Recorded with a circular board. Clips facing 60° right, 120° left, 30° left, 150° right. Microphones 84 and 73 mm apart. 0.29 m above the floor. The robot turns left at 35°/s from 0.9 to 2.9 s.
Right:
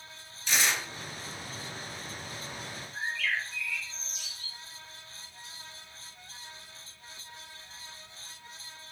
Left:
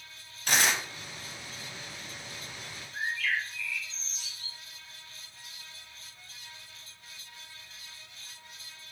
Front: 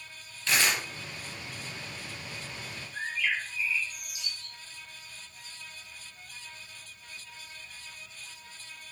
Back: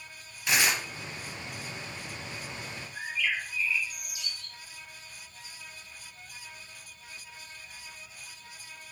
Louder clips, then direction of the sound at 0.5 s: Left 2 dB, even; 140° left.